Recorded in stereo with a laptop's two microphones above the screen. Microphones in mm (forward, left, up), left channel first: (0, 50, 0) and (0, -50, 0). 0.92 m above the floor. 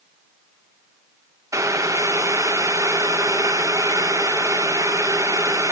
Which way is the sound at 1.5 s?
30° right (ahead or behind).